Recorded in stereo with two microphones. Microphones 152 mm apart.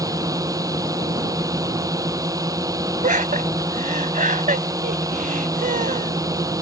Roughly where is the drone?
Right.